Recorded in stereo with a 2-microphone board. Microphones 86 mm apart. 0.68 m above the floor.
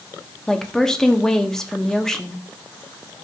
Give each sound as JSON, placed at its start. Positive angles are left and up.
{"t": 0.5, "sound": "a woman speaking", "side_deg": 5, "distance_m": 0.8}